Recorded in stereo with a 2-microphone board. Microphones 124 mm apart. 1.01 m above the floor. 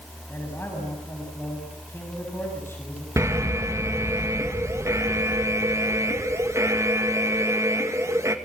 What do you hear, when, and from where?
0.3 s a man speaking: 20° left (ahead or behind), 7 m
3.2 s an alarm: 25° right (ahead or behind), 2 m